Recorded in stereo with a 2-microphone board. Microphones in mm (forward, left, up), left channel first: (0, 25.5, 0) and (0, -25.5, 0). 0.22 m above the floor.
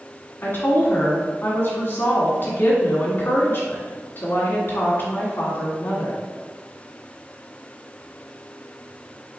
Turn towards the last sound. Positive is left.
turn(degrees=50)  # may be behind; listen again after turning